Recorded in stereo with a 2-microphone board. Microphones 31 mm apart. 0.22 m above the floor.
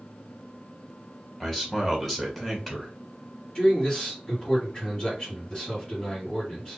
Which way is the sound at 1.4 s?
10° left (ahead or behind).